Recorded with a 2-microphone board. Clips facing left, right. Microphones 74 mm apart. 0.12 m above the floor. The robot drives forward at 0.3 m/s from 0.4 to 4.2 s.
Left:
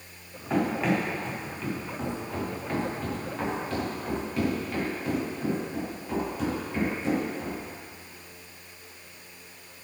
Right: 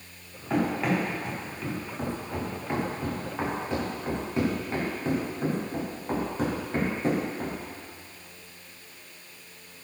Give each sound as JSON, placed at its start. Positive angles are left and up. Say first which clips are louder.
{"t": 0.5, "sound": "running footsteps", "louder": "even", "side_deg": 0, "distance_m": 5.0}